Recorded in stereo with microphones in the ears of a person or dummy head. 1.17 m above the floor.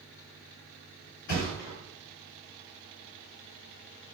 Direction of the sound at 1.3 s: 50° left (ahead or behind).